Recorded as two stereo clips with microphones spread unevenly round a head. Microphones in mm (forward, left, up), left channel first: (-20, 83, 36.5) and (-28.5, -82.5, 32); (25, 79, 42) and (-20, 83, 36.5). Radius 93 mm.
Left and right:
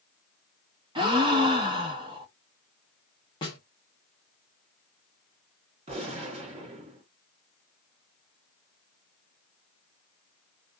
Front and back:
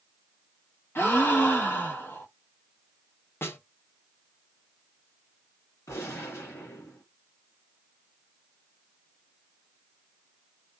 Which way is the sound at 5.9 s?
35° right.